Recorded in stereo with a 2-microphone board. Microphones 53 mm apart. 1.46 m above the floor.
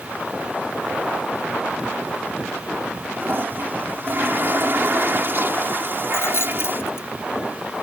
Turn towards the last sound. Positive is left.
turn(degrees=55)  # may be behind; listen again after turning